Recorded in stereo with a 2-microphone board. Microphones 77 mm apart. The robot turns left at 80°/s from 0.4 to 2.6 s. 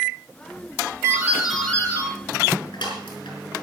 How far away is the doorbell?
About 7.5 m.